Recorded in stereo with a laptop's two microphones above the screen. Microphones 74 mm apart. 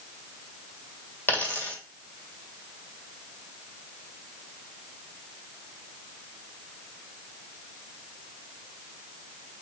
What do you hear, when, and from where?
1.3 s a dropped coin: 25° left (ahead or behind), 1.7 m